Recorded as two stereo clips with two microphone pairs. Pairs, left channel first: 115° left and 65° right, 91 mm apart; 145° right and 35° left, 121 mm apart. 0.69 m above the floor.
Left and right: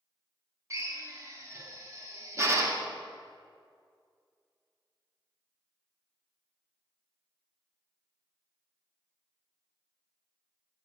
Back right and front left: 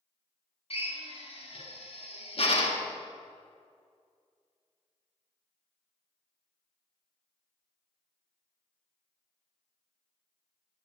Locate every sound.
0.7 s a drill: 120° right, 1.2 m